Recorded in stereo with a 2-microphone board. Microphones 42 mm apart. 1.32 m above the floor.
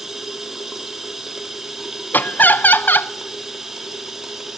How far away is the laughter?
About 0.6 m.